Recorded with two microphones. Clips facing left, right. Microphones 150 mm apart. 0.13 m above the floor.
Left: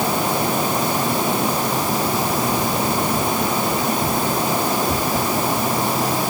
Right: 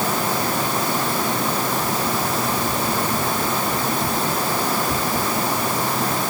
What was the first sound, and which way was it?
Only background noise.